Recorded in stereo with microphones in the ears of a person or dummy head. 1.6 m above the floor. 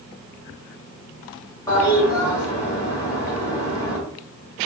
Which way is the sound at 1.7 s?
25° left (ahead or behind).